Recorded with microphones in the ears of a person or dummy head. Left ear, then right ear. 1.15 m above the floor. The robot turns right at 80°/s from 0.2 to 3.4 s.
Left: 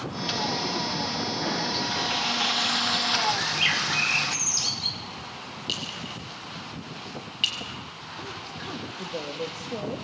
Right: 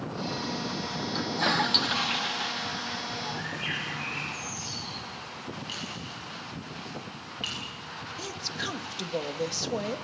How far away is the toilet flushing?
About 0.9 m.